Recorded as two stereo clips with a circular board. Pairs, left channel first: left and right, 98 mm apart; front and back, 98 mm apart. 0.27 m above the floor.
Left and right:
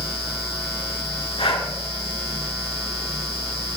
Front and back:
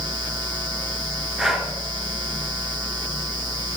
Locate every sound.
1.4 s breathing: 95° left, 3.5 m